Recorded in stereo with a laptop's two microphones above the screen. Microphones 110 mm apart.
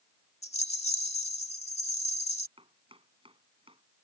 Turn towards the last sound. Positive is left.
turn(degrees=-55)  # may be behind; listen again after turning